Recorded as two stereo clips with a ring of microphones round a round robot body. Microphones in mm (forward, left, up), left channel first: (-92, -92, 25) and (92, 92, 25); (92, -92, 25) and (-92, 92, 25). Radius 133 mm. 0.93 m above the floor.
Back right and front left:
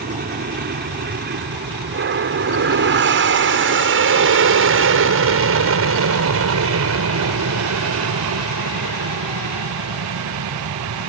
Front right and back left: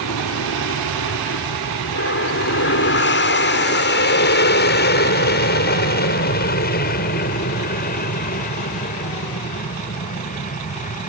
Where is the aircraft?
10° right; by 11.1 s 15° left.